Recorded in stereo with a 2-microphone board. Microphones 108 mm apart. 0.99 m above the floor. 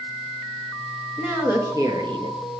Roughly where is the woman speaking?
Centre.